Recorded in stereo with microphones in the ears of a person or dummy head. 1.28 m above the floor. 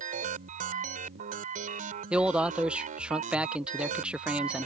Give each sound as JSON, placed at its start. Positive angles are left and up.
{"t": 0.0, "sound": "a machine running", "side_deg": -45}
{"t": 2.1, "sound": "a man speaking", "side_deg": -5}